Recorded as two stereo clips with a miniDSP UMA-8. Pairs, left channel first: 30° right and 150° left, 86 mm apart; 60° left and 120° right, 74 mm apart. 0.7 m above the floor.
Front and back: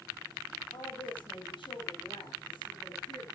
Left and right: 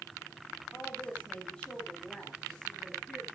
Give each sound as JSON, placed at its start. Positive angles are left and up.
{"t": 0.7, "sound": "a woman speaking", "azimuth_deg": -15, "distance_m": 3.0}